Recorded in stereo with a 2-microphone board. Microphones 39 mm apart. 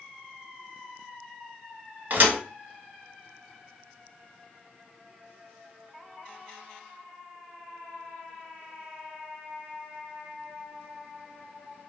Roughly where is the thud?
Right.